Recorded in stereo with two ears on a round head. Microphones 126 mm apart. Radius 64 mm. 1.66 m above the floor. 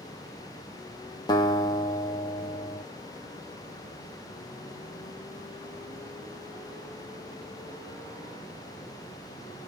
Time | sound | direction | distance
1.3 | a guitar | 30° left (ahead or behind) | 0.7 m